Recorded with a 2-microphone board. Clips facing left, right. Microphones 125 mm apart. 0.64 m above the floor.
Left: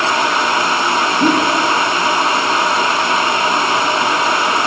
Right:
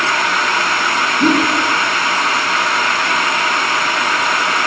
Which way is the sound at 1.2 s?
Centre (ahead or behind).